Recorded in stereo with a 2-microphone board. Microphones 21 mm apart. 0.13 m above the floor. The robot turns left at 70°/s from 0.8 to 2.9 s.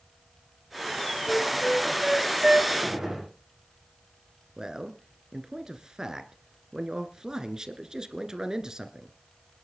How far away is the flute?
About 1.3 m.